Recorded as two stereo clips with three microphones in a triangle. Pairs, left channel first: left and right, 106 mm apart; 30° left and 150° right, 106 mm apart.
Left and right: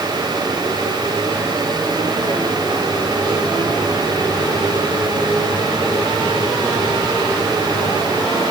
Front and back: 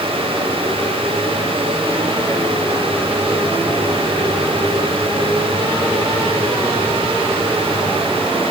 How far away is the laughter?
No laughter in this recording.